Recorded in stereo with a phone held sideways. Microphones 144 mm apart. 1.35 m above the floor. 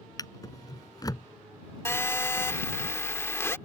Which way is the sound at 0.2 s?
25° left (ahead or behind).